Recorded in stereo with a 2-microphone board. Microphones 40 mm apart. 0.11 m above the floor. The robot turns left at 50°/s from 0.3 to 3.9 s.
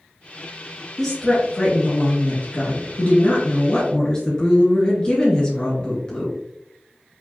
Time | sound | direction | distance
1.0 | a woman speaking | straight behind | 1.4 m